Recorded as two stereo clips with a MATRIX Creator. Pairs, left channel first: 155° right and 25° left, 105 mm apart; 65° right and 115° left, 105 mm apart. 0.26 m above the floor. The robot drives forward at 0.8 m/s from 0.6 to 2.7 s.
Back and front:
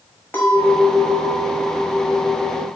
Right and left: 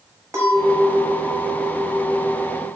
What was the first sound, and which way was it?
A clink, 145° left.